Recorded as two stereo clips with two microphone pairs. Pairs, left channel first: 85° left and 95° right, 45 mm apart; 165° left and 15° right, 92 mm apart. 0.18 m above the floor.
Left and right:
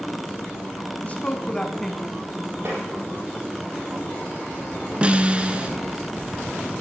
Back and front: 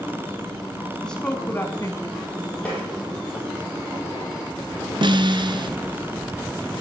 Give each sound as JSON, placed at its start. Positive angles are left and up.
{"t": 1.0, "sound": "a woman speaking", "azimuth_deg": 90, "distance_m": 1.2}
{"t": 2.6, "sound": "tapping", "azimuth_deg": -120, "distance_m": 5.0}
{"t": 5.0, "sound": "a snare drum", "azimuth_deg": -35, "distance_m": 1.1}